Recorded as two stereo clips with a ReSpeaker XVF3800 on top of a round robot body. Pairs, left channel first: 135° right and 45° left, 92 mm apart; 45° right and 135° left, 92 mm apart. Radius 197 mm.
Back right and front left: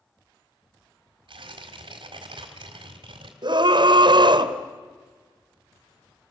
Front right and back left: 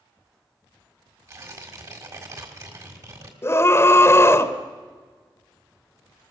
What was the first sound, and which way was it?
Tearing paper, 80° left.